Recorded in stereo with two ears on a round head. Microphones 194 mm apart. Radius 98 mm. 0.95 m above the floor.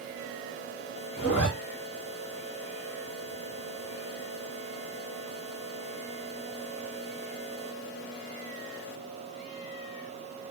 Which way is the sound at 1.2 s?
50° left (ahead or behind).